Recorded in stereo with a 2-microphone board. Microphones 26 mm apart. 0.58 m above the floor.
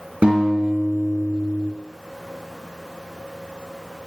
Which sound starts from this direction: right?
A guitar, at 0.2 s.